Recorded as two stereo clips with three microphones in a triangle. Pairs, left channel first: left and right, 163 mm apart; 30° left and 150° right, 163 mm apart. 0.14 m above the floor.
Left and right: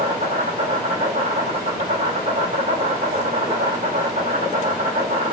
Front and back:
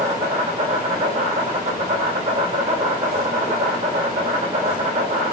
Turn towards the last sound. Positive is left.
turn(degrees=-115)